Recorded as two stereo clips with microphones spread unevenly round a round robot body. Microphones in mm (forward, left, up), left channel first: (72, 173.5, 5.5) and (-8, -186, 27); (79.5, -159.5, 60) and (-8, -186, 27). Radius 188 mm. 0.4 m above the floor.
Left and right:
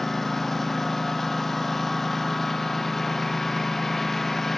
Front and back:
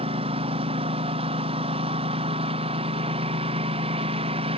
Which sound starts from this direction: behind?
A lawn mower, at 0.0 s.